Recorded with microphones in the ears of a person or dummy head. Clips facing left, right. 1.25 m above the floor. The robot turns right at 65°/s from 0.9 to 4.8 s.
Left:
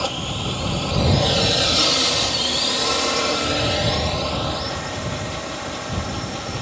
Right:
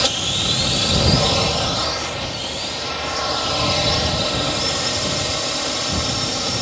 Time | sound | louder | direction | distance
0.0 | a drone | right 1 dB | 20° right | ?